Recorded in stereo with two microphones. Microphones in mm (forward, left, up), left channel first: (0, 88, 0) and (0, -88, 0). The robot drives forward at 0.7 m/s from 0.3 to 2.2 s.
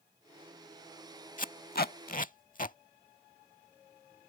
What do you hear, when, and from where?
1.4 s tape being pulled: 50° left (ahead or behind)